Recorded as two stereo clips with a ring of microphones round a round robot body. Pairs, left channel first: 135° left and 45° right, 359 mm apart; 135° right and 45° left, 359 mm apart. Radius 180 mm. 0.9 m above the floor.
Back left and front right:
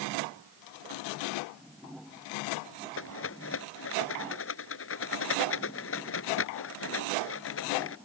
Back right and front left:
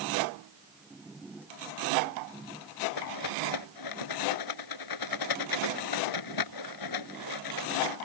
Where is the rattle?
170° right.